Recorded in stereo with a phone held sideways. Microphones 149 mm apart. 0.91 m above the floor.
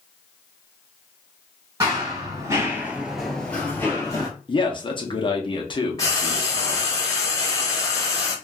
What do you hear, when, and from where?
1.8 s running footsteps: 25° right (ahead or behind), 1.5 m; by 4.3 s 20° left (ahead or behind), 1.4 m
4.5 s a man speaking: 35° left (ahead or behind), 0.8 m
6.0 s frying: 20° left (ahead or behind), 1.1 m